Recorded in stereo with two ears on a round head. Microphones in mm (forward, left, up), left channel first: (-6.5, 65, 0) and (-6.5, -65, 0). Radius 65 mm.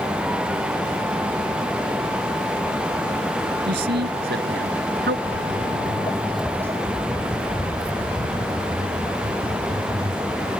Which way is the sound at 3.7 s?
85° right.